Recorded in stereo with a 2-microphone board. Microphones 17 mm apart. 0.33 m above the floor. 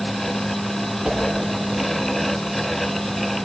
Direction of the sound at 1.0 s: 65° right (ahead or behind).